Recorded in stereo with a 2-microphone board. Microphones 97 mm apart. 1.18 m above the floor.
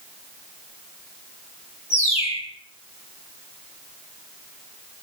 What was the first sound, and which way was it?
A bird, 85° left.